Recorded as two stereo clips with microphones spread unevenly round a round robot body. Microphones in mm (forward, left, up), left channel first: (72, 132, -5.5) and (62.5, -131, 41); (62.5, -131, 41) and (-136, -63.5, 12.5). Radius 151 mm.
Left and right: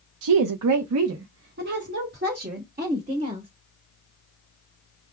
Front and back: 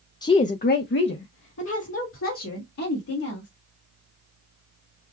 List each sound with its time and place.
0.2 s a woman speaking: 95° right, 0.5 m; by 3.5 s 30° right, 2 m